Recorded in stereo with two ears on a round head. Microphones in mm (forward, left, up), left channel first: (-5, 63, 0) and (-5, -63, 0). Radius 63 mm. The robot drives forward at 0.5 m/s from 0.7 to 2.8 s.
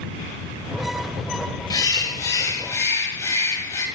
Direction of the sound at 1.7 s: 30° left (ahead or behind).